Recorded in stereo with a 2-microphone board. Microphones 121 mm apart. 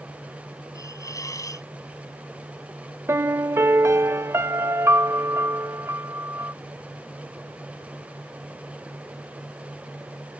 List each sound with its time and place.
0.8 s a hiss: 30° left (ahead or behind)
3.1 s a piano: 20° right (ahead or behind)